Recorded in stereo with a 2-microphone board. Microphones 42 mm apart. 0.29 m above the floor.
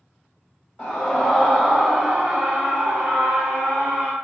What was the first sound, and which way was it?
A scream, 20° left (ahead or behind).